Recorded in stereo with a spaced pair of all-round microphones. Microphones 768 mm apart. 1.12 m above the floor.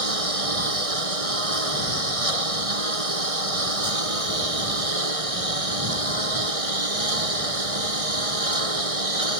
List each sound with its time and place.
0.0 s a lawn mower: 45° right (ahead or behind)